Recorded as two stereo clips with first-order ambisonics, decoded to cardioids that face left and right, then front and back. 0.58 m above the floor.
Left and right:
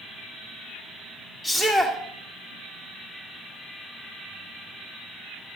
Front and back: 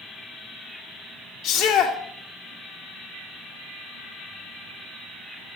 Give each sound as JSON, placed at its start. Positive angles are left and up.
{"t": 1.4, "sound": "a shout", "azimuth_deg": 5, "distance_m": 1.8}